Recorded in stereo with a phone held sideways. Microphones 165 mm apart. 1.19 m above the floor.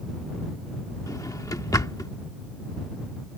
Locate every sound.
1.1 s a drawer: 20° left (ahead or behind)